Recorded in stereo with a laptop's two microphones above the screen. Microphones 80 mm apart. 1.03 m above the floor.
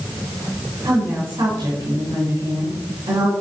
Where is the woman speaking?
85° right, 4 m.